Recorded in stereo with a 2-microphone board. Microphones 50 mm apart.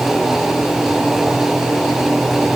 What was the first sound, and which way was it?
Only background noise.